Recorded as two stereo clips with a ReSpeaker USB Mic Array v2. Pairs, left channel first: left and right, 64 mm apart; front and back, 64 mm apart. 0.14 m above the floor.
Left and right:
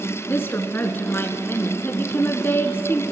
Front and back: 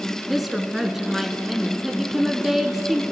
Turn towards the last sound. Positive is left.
turn(degrees=95)